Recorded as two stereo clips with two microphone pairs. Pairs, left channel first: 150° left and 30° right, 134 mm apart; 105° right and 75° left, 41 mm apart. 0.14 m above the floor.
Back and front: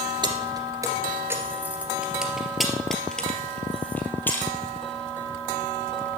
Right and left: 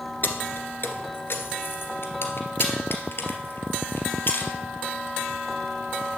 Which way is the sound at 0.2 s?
85° right.